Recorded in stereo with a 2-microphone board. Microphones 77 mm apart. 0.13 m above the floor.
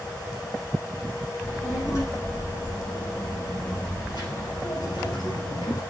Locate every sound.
1.4 s a child speaking: 40° left (ahead or behind), 4 m; by 5.8 s 55° left (ahead or behind), 2 m